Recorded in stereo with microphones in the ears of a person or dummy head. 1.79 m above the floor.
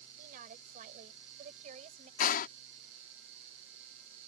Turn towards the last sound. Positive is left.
turn(degrees=50)  # may be behind; listen again after turning